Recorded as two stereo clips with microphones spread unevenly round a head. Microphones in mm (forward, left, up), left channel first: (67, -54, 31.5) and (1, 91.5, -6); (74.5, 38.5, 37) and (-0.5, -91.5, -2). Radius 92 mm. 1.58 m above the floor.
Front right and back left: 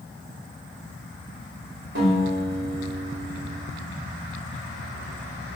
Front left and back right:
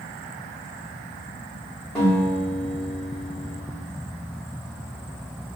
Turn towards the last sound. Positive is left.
turn(degrees=140)